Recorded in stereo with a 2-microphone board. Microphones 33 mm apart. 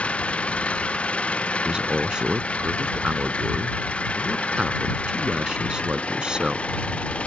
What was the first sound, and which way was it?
An engine running, 40° left (ahead or behind).